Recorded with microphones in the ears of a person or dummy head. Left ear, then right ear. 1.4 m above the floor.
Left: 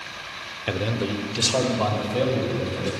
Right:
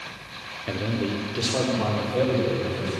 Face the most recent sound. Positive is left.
turn(degrees=5)  # may be behind; listen again after turning